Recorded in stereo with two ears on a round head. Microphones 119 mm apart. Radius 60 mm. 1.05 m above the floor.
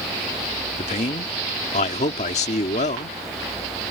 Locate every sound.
0.8 s a man speaking: 50° left (ahead or behind)